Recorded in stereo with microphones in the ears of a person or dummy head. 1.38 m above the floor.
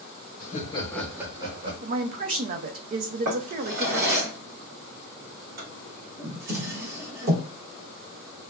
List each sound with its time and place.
0.4 s laughter: 50° left (ahead or behind), 1.0 m; by 1.7 s 40° right (ahead or behind), 1.1 m
1.8 s a woman speaking: 45° right (ahead or behind), 0.5 m
3.2 s a drawer: 60° right (ahead or behind), 0.9 m